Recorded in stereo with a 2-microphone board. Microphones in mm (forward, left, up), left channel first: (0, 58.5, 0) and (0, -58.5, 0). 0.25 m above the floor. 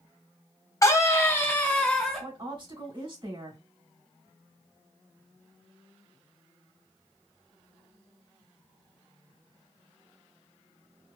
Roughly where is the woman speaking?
Right.